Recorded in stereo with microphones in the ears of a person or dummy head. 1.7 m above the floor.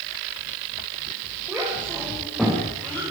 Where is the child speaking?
Centre (ahead or behind), 6.5 m; by 3.0 s 5° left (ahead or behind), 5.5 m.